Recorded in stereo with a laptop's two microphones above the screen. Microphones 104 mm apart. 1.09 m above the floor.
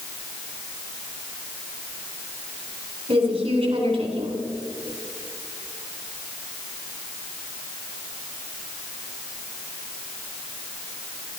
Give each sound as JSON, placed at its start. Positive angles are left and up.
{"t": 3.1, "sound": "a woman speaking", "side_deg": -70, "distance_m": 3.0}